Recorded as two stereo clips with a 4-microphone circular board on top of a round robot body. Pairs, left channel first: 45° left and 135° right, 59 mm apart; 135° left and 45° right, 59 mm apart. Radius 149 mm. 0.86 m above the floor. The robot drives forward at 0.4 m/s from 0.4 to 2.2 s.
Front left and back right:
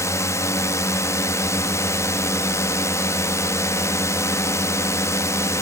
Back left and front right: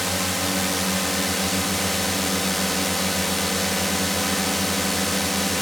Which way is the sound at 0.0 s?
45° left.